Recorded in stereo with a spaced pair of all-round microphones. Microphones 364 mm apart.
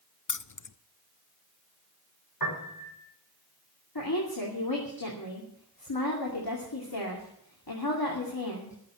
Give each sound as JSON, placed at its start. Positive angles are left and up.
{"t": 0.3, "sound": "keys jangling", "side_deg": 55, "distance_m": 0.6}
{"t": 2.4, "sound": "a piano", "side_deg": 65, "distance_m": 5.0}
{"t": 4.0, "sound": "a woman speaking", "side_deg": 75, "distance_m": 2.5}